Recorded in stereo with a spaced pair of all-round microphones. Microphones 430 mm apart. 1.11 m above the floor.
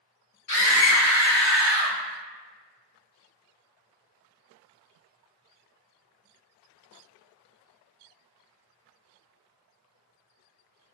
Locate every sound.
0.5 s a scream: 65° left (ahead or behind), 1.8 m; by 2.0 s 80° left, 2.5 m